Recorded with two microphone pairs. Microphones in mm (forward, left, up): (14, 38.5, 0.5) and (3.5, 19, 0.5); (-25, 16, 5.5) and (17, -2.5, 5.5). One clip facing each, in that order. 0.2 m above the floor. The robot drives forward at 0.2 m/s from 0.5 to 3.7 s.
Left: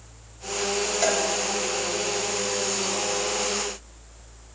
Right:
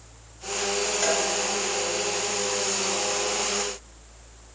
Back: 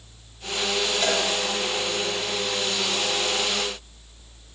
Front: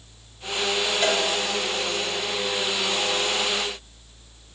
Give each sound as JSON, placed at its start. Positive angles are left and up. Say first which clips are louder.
{"t": 1.0, "sound": "a cowbell", "louder": "left 2 dB, front 2 dB", "azimuth_deg": 50, "distance_m": 1.8}